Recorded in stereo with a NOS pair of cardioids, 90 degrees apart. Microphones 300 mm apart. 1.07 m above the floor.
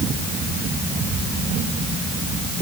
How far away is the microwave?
I don't hear a microwave.